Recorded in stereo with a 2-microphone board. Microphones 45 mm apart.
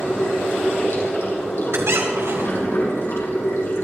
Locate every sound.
0.0 s running water: 70° left (ahead or behind), 4.5 m
1.7 s a squeak: 75° right (ahead or behind), 2.5 m